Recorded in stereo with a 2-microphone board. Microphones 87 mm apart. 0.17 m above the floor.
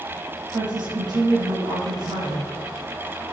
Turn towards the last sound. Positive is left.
turn(degrees=-50)  # may be behind; listen again after turning